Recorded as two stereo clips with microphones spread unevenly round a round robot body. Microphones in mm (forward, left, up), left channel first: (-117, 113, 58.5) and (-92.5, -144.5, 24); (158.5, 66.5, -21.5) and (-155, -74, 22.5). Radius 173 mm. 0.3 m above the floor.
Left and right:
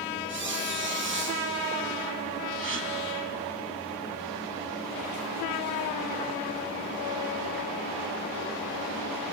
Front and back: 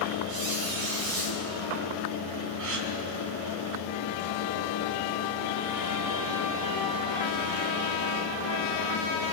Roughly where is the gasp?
Behind right.